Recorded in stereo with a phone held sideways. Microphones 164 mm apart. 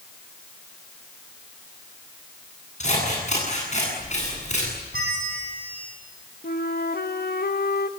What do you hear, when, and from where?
2.8 s scissors: 45° left (ahead or behind), 10 m
4.9 s a bell: 70° right (ahead or behind), 7.5 m
6.4 s a flute: 75° left (ahead or behind), 1.4 m